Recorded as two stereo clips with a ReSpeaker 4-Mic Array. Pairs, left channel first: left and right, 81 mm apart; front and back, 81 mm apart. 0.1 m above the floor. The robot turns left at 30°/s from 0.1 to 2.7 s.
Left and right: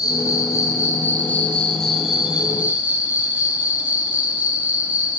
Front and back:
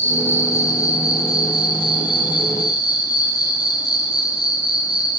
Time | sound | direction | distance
0.0 | an insect | 60° left | 4 m